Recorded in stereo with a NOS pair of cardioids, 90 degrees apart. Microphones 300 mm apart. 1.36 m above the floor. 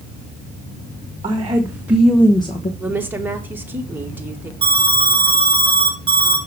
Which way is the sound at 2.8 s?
5° right.